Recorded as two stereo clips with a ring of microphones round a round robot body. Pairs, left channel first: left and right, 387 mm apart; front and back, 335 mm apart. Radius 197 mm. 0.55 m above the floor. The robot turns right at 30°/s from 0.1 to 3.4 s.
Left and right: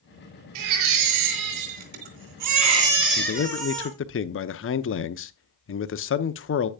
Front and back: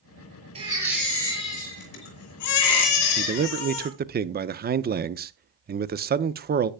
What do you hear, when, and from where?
0.6 s a baby crying: 105° right, 3 m; by 3.9 s 20° right, 3 m
3.2 s a man speaking: 125° left, 0.7 m; by 6.7 s 130° left, 0.7 m